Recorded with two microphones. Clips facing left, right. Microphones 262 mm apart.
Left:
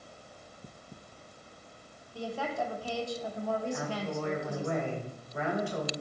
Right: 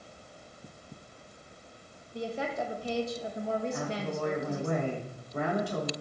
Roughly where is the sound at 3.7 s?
Right.